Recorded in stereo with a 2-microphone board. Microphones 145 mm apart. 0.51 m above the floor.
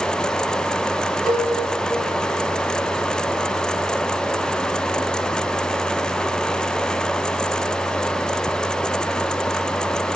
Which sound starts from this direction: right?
A cowbell, at 1.3 s.